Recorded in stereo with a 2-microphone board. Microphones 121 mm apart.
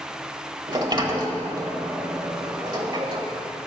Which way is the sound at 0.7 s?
40° right (ahead or behind).